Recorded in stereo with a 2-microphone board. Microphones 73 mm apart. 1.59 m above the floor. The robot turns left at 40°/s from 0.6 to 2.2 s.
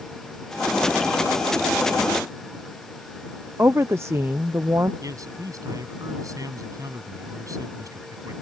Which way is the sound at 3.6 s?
35° right (ahead or behind).